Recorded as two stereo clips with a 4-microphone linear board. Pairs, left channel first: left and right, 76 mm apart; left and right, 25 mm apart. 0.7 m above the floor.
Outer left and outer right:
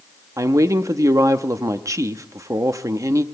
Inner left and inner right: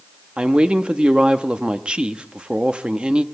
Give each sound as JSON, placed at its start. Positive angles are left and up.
{"t": 0.4, "sound": "a woman speaking", "side_deg": -40, "distance_m": 0.7}